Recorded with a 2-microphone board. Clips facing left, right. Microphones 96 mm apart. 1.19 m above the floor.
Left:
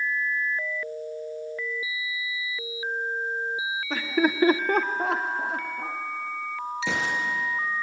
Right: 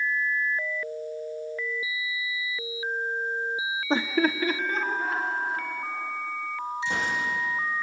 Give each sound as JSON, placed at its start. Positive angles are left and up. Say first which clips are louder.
{"t": 3.9, "sound": "laughter", "louder": "even", "side_deg": -30, "distance_m": 0.6}
{"t": 6.8, "sound": "a gunshot", "louder": "left 1 dB", "side_deg": 80, "distance_m": 5.0}